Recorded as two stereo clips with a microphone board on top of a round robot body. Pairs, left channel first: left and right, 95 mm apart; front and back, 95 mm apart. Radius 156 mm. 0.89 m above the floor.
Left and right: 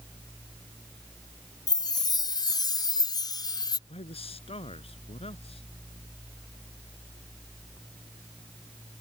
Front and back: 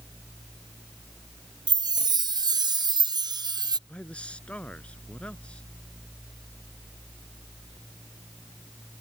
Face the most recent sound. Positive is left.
turn(degrees=80)